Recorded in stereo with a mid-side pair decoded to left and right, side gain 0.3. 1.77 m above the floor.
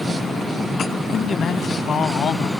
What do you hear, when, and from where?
1.1 s a man speaking: 70° left